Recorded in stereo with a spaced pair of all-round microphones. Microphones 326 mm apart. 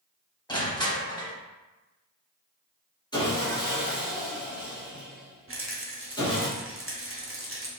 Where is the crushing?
15° left (ahead or behind), 0.8 m.